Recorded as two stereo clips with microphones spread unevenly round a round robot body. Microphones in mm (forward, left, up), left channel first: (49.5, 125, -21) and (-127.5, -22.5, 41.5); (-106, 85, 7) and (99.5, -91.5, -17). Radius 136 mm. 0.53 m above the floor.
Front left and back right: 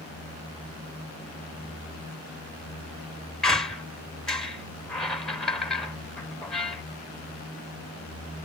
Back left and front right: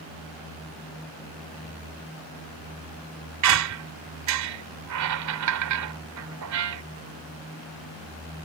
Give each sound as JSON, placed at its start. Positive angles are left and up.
{"t": 3.4, "sound": "a squeak", "azimuth_deg": -40}